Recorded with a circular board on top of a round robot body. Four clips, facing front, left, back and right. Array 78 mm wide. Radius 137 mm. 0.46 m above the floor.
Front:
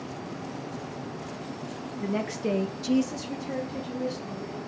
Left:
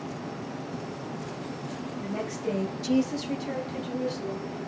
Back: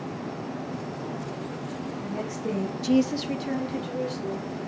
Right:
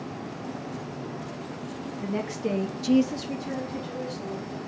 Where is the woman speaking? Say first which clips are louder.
Right 3 dB, front 5 dB; 25° right, 1.3 m; by 4.6 s 165° left, 2.5 m.